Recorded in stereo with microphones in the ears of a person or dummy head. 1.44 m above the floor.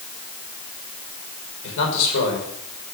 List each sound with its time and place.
1.6 s a man speaking: 70° left (ahead or behind), 5 m